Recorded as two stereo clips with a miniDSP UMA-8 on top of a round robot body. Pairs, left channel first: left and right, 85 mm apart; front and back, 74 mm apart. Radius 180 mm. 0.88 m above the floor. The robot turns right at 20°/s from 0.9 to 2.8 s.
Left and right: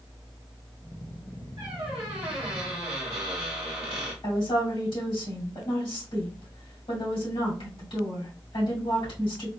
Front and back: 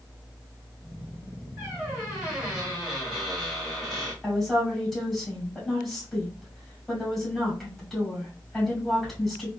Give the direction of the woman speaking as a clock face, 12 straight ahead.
9 o'clock.